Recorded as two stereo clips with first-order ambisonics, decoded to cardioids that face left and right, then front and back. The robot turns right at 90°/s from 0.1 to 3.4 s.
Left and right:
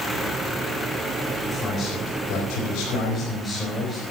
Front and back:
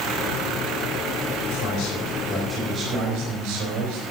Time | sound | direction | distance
1.5 | a man speaking | 10° right | 4.5 m